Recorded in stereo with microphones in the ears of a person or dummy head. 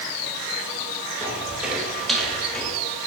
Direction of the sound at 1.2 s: 10° right (ahead or behind).